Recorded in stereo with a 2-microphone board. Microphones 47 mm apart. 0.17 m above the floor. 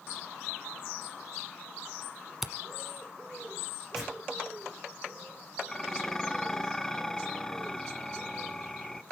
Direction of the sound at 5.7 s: 10° left (ahead or behind).